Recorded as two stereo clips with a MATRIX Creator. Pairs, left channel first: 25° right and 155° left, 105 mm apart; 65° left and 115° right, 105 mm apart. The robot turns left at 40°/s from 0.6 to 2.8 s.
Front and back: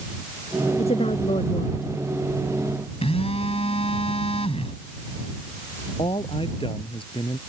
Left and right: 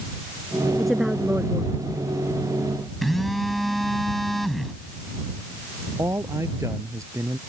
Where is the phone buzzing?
20° right.